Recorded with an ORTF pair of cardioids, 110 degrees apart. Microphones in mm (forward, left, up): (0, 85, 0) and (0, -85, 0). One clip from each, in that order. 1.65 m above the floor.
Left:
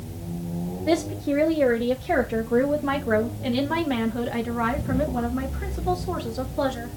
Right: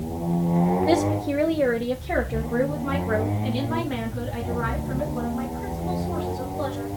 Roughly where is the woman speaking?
Ahead.